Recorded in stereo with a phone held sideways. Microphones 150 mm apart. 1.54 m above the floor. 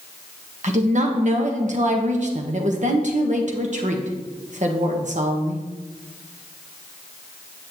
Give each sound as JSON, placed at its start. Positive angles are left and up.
{"t": 0.6, "sound": "a woman speaking", "side_deg": -55, "distance_m": 1.3}